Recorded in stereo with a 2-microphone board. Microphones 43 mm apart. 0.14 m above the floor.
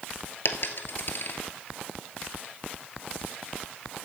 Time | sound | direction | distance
0.5 | a dropped coin | 60° left (ahead or behind) | 1.3 m